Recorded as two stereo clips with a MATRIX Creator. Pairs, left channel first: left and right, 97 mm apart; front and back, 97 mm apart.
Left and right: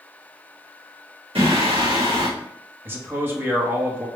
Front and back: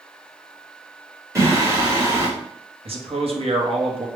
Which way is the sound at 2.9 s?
160° right.